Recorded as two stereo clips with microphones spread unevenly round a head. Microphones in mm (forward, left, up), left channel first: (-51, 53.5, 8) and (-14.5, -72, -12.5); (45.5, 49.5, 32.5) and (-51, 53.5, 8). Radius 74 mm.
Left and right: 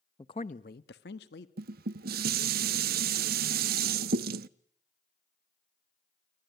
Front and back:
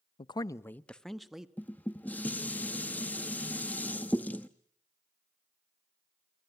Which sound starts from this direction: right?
Dishes clattering, at 1.6 s.